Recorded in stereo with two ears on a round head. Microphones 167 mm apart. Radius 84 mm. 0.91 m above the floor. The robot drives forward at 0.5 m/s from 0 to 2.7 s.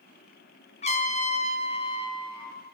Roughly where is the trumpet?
Left.